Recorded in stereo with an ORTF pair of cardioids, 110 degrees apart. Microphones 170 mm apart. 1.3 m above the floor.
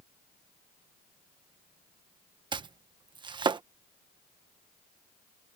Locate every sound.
2.5 s chopping: 30° right